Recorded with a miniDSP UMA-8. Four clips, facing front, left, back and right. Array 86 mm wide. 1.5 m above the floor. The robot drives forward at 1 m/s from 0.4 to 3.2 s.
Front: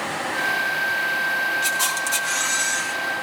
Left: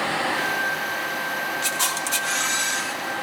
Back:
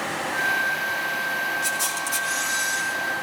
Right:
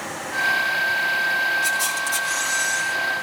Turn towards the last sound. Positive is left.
turn(degrees=85)